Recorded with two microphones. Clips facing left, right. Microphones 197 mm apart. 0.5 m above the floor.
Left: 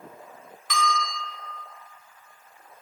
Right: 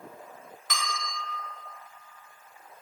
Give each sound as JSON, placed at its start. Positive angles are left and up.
{"t": 0.7, "sound": "a bell", "side_deg": -50, "distance_m": 0.7}